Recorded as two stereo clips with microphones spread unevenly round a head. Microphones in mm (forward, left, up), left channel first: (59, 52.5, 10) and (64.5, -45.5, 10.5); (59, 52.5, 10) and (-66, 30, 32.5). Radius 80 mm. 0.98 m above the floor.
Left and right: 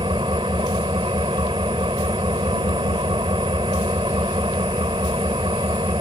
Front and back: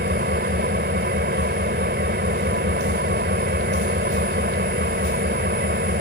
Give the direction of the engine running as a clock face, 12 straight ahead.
5 o'clock.